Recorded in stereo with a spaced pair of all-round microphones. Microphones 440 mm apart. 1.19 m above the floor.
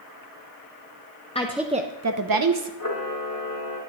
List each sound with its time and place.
1.4 s a woman speaking: 15° left (ahead or behind), 0.5 m; by 2.7 s 65° right (ahead or behind), 0.8 m
2.8 s a camera shutter: 50° left (ahead or behind), 1.5 m